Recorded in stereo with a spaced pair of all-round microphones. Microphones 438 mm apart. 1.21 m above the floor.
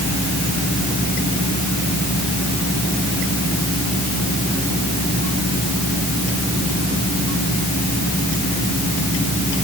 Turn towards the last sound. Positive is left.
No sound to turn to.